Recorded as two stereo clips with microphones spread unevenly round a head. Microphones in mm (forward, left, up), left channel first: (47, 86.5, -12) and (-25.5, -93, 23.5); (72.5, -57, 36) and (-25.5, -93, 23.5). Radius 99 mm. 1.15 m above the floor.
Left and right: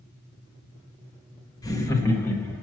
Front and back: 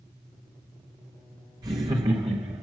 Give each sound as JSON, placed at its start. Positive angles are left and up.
{"t": 1.6, "sound": "laughter", "azimuth_deg": 140, "distance_m": 1.4}